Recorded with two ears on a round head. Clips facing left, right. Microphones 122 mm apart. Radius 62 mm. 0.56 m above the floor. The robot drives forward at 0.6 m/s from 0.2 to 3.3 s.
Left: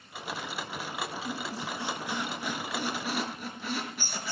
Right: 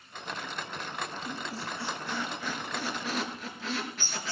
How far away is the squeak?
About 2.5 m.